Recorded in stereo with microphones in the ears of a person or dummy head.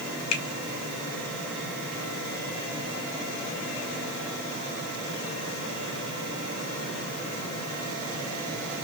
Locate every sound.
0.3 s a finger snap: 65° left (ahead or behind), 2.5 m